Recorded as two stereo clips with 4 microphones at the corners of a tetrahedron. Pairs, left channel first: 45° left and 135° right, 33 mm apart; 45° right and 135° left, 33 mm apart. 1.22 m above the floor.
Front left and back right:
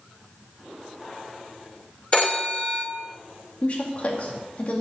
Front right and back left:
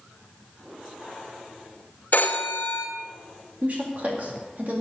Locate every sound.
2.1 s a phone ringing: 10° right, 2.0 m
3.6 s a woman speaking: 95° left, 2 m